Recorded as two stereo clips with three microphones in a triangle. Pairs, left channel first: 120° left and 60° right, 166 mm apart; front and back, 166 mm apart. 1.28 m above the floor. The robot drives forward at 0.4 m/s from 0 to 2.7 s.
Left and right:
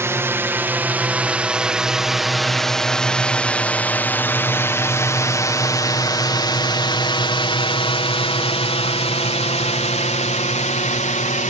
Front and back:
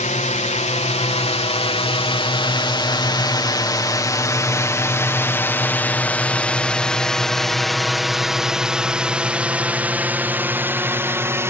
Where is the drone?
10° left; by 11.5 s 110° left.